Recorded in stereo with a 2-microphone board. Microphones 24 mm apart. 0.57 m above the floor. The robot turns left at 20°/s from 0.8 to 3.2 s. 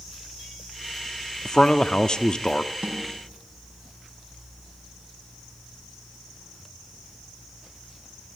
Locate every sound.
1.4 s a man speaking: 30° left (ahead or behind), 0.8 m
2.8 s a snare drum: 75° right (ahead or behind), 5.5 m; by 3.0 s 80° right, 5.5 m